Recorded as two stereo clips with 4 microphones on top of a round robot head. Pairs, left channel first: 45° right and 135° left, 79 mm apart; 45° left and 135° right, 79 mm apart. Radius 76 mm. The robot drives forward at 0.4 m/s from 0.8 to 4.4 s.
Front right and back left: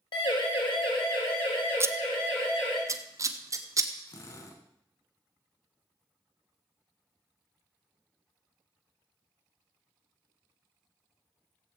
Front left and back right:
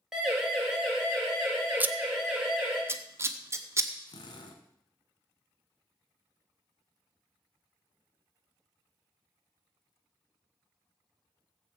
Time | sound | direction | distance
0.1 | a siren | 55° right | 4.5 m
1.8 | scissors | 165° left | 1.1 m
4.1 | a drill | 10° left | 2.5 m